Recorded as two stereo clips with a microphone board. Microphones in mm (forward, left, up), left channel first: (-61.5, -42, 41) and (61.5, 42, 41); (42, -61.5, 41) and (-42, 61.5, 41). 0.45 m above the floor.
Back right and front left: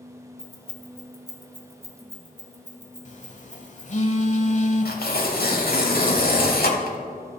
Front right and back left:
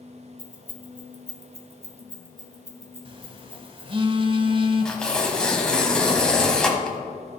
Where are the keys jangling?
130° left, 1.4 m; by 4.0 s 50° left, 2.5 m.